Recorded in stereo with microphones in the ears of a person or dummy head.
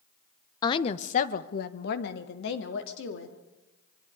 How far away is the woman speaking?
About 1.1 m.